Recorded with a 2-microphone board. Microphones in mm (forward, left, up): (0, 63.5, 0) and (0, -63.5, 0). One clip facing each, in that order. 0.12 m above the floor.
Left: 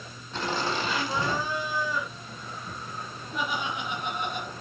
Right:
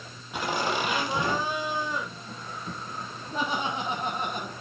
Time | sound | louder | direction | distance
0.3 | laughter | right 1 dB | 10° right (ahead or behind) | 5 m